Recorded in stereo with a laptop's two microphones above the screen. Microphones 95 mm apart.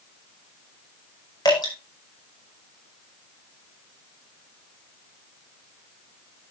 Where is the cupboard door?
I don't hear a cupboard door.